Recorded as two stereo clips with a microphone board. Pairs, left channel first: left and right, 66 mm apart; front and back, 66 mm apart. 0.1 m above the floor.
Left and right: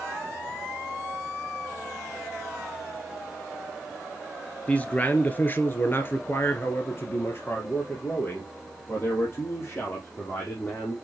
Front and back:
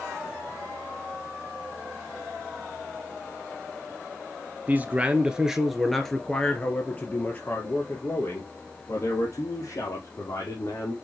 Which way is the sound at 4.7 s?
145° left.